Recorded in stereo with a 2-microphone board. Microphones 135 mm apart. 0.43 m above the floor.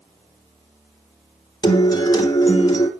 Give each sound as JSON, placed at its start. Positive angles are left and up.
{"t": 1.6, "sound": "a guitar", "side_deg": 30, "distance_m": 2.0}